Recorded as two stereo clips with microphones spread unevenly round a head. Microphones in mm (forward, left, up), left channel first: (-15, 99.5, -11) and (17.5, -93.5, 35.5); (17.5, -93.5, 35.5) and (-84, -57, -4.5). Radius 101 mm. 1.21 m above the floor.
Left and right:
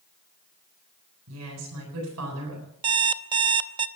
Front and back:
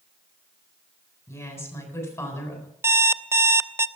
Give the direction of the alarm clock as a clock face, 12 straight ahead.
4 o'clock.